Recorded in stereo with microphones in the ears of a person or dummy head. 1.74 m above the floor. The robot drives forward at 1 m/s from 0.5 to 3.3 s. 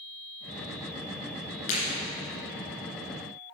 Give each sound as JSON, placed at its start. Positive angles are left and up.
{"t": 1.7, "sound": "breaking glass", "side_deg": 35, "distance_m": 2.5}